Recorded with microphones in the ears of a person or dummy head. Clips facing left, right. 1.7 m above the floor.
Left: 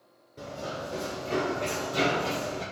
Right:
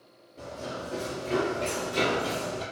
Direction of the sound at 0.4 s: 5° left (ahead or behind).